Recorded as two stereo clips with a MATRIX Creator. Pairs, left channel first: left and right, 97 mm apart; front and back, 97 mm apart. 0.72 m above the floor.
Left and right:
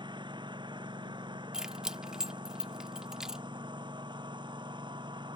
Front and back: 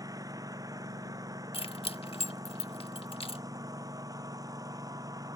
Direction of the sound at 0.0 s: 125° right.